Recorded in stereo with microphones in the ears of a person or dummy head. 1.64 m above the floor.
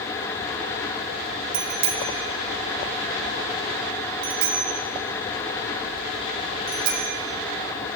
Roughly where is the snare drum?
No snare drum in this recording.